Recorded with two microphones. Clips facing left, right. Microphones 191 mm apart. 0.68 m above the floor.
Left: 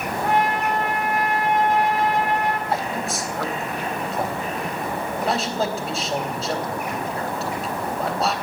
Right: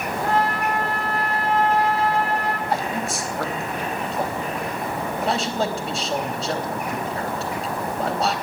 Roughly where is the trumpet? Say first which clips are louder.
Left 1 dB; centre.